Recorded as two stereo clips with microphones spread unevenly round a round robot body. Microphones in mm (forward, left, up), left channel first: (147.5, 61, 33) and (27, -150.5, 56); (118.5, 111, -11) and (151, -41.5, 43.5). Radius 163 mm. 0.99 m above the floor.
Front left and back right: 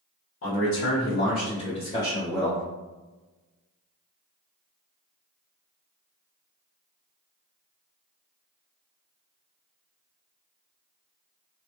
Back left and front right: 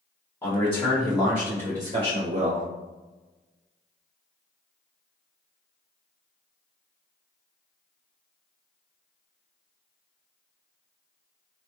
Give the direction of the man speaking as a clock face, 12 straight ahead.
11 o'clock.